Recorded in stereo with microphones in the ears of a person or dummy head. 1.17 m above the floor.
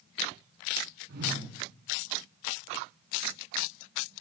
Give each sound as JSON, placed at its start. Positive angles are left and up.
{"t": 1.1, "sound": "a whoosh", "side_deg": -60, "distance_m": 9.0}